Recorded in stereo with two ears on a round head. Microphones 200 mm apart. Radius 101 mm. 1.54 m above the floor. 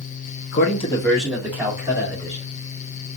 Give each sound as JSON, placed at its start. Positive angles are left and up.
{"t": 0.5, "sound": "a man speaking", "side_deg": 55, "distance_m": 0.6}